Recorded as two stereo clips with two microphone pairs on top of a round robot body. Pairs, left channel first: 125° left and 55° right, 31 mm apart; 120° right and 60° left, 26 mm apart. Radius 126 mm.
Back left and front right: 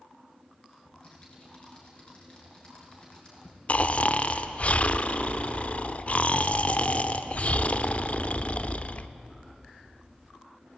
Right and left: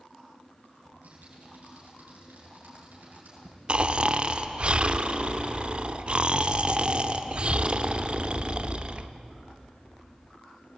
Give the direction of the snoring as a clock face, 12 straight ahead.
8 o'clock.